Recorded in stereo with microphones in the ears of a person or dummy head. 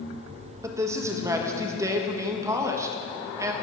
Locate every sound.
0.6 s a man speaking: 20° right (ahead or behind), 1.5 m